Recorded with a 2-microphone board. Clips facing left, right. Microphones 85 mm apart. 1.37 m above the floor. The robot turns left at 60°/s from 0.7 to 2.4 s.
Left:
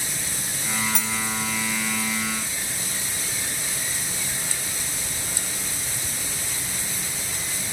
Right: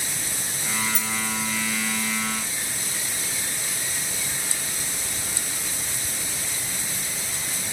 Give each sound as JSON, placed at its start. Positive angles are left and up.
{"t": 0.9, "sound": "cutlery clinking", "side_deg": 65, "distance_m": 1.3}